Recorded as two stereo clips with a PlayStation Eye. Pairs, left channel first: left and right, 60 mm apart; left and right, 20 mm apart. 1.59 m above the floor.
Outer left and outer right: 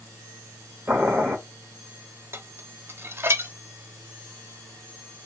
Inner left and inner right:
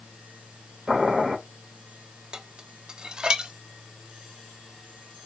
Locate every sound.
0.9 s boiling: 30° right (ahead or behind), 1.8 m
2.3 s dishes clattering: 45° right (ahead or behind), 0.8 m